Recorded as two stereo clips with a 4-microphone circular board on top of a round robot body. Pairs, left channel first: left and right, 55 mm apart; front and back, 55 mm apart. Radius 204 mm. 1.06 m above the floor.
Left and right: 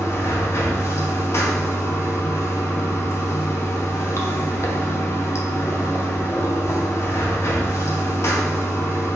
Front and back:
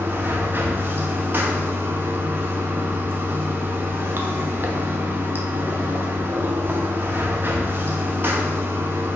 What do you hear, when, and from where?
0.0 s running water: 130° left, 0.8 m